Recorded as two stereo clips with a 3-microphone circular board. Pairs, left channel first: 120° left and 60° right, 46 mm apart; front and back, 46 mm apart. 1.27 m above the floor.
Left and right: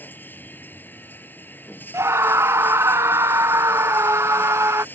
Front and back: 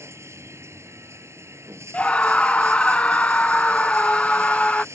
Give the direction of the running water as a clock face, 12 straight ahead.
6 o'clock.